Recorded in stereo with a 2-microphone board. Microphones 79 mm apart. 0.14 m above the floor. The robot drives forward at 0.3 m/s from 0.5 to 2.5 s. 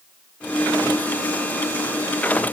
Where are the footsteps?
No footsteps in this recording.